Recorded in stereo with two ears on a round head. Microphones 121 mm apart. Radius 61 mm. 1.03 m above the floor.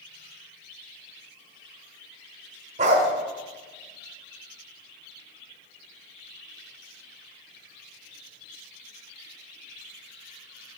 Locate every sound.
2.8 s a dog barking: 55° right (ahead or behind), 1.1 m